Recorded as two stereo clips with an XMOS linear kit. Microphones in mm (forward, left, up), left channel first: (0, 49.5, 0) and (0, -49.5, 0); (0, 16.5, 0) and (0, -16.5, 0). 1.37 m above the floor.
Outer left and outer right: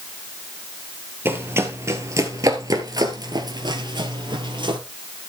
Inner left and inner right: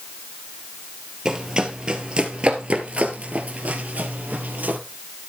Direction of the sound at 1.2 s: 25° right (ahead or behind).